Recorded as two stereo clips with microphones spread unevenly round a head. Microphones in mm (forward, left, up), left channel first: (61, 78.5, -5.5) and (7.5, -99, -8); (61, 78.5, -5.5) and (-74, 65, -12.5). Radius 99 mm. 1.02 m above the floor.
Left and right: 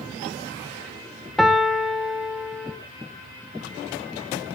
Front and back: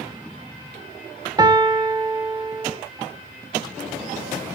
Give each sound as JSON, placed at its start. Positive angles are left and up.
{"t": 1.4, "sound": "a piano", "azimuth_deg": 165, "distance_m": 0.8}